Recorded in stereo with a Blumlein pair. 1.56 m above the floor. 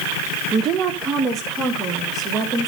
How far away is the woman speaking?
About 1.4 m.